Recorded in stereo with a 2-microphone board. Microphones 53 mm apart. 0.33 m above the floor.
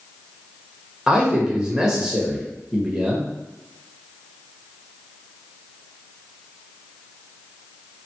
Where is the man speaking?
10° right (ahead or behind), 0.8 m.